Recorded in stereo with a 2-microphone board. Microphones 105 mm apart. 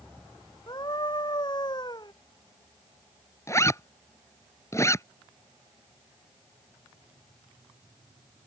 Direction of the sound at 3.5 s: 25° left (ahead or behind).